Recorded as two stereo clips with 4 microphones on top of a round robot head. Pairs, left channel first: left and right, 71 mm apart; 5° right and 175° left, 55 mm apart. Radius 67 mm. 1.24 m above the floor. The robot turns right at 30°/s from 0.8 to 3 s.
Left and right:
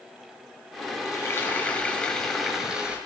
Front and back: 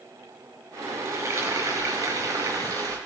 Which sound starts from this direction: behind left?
Frying, at 1.1 s.